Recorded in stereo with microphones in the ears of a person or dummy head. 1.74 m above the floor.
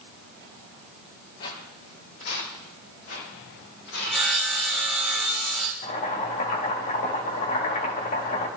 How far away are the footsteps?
About 3.5 m.